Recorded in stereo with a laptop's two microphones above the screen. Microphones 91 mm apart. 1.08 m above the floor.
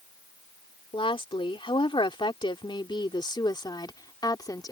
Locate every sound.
0.9 s a woman speaking: 75° left (ahead or behind); by 4.7 s 45° left (ahead or behind)